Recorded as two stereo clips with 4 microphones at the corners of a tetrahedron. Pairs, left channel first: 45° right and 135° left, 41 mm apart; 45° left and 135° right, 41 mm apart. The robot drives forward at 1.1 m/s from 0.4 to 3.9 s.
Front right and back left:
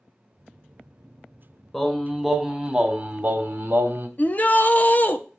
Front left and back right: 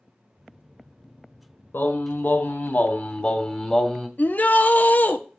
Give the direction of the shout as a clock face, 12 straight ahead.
12 o'clock.